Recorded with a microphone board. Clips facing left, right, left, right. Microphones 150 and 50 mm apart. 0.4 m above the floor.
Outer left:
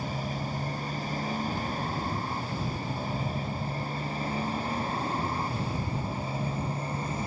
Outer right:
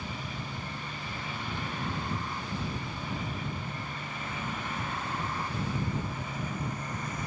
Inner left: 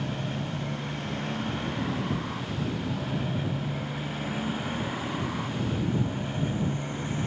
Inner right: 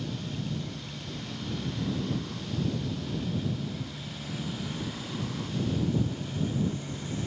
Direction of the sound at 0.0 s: 40° left (ahead or behind).